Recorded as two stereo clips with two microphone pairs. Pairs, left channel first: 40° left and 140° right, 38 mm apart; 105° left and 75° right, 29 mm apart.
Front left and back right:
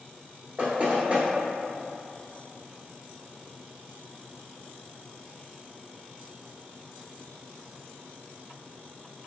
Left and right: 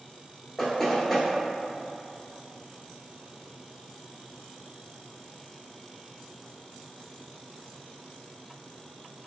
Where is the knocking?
Straight behind, 1.2 m.